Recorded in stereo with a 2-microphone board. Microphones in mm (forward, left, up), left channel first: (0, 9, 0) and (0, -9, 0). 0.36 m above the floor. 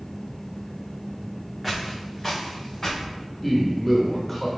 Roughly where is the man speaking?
Centre.